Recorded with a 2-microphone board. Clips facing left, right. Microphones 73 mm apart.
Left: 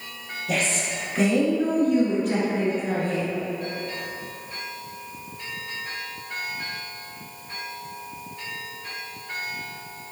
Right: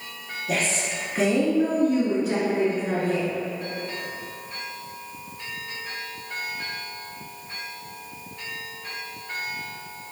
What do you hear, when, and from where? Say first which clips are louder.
0.5 s a woman speaking: even; 5° right (ahead or behind), 1.3 m